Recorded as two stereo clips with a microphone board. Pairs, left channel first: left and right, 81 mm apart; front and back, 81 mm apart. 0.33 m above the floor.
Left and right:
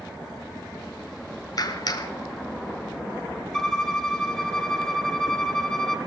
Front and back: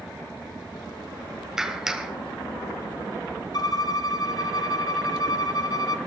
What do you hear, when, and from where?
1.6 s a clap: 100° left, 1.2 m
3.5 s a violin: 10° left, 0.9 m